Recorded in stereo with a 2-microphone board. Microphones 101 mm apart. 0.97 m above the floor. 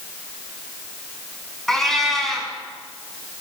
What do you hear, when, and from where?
1.7 s a cat meowing: 5° left (ahead or behind), 5 m